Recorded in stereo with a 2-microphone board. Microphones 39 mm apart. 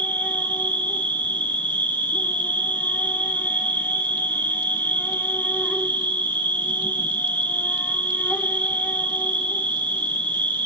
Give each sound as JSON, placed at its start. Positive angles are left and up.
{"t": 0.0, "sound": "an insect", "side_deg": 55, "distance_m": 1.2}